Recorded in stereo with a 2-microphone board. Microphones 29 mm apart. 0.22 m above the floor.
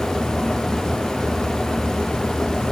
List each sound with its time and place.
Only background noise.